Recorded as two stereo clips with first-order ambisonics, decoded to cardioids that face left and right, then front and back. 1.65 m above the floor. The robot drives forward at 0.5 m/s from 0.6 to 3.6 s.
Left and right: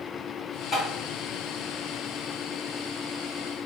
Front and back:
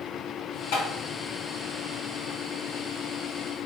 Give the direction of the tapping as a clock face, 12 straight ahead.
12 o'clock.